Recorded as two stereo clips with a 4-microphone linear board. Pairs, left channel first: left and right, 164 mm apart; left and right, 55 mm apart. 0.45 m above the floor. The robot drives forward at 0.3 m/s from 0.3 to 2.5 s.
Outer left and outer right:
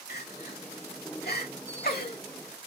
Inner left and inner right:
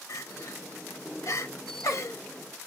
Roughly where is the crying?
Left.